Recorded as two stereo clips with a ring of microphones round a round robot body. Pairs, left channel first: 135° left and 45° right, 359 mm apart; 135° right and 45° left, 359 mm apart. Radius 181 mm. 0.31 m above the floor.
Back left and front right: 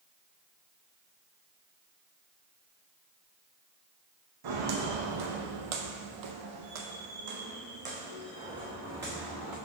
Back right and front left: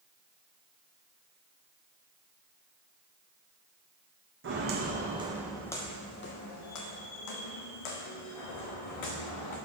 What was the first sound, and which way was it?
Footsteps, 15° right.